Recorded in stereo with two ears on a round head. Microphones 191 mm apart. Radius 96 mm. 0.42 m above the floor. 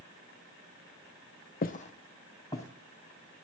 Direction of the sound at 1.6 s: 40° left (ahead or behind).